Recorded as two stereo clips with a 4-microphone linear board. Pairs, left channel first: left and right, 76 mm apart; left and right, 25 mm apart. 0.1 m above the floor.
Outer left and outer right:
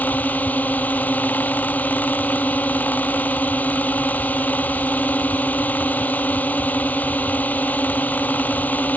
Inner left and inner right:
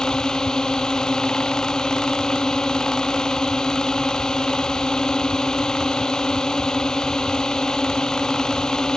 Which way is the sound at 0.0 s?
20° left (ahead or behind).